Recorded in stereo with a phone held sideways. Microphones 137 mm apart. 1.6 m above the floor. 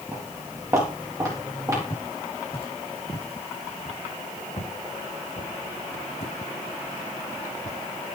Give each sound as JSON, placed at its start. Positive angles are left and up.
{"t": 0.1, "sound": "footsteps", "side_deg": -20, "distance_m": 9.5}
{"t": 1.9, "sound": "footsteps", "side_deg": 40, "distance_m": 5.5}